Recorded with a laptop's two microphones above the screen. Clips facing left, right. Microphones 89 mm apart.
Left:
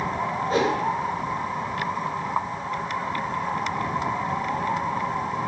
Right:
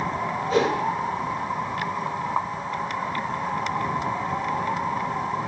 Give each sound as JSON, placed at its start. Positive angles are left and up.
{"t": 0.5, "sound": "a whoosh", "side_deg": 50, "distance_m": 3.5}